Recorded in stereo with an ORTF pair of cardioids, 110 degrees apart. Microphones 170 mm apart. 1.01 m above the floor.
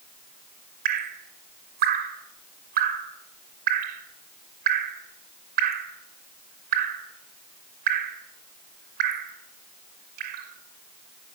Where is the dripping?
65° right, 2.5 m.